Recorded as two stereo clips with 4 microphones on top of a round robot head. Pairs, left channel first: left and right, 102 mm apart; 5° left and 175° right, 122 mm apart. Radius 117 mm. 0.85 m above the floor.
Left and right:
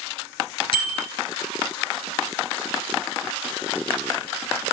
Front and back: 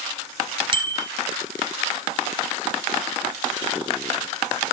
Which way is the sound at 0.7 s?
135° left.